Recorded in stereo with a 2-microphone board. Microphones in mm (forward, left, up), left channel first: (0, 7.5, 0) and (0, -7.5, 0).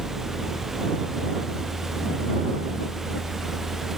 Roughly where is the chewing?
I don't hear chewing.